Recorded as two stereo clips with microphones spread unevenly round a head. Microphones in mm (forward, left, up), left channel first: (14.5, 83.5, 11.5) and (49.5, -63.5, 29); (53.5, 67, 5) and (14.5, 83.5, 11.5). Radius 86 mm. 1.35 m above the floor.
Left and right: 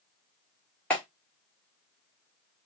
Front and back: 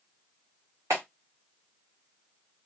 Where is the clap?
170° right, 1.7 m.